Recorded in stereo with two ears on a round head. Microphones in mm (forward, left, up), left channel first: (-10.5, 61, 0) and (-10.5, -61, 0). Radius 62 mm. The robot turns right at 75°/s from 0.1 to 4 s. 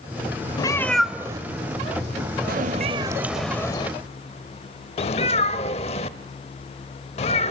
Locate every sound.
0.6 s a cat meowing: 30° left (ahead or behind), 0.8 m; by 7.5 s 45° left (ahead or behind), 0.8 m